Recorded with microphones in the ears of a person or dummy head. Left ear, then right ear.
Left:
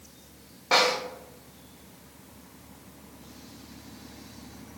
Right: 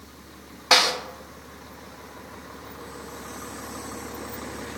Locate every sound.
0.7 s a snare drum: 50° right (ahead or behind), 1.6 m